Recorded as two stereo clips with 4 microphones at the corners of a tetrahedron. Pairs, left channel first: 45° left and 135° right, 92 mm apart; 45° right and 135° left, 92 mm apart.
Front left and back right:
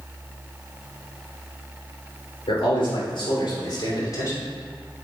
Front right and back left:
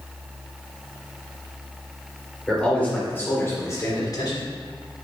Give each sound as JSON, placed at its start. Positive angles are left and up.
{"t": 2.5, "sound": "a man speaking", "azimuth_deg": 35, "distance_m": 3.5}